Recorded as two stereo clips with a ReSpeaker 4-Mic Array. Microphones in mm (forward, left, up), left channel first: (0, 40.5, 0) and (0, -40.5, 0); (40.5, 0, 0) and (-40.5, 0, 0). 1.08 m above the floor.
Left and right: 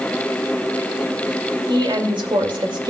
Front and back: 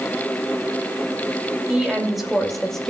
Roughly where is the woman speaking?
Right.